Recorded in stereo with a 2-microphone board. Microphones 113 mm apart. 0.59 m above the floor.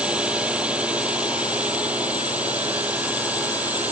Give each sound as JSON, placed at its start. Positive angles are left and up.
{"t": 0.0, "sound": "a drone", "side_deg": -10}